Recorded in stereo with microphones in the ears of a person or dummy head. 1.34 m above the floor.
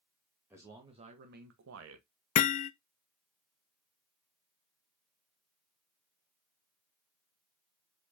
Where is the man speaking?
10° right (ahead or behind), 1.6 m; by 2.1 s 85° right, 1.5 m.